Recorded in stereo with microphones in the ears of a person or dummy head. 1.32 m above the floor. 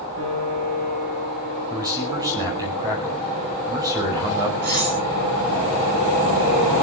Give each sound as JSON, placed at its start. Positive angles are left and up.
{"t": 0.2, "sound": "a piano", "side_deg": -80, "distance_m": 9.0}
{"t": 1.7, "sound": "a man speaking", "side_deg": -20, "distance_m": 5.5}
{"t": 4.6, "sound": "cutlery clinking", "side_deg": -55, "distance_m": 6.5}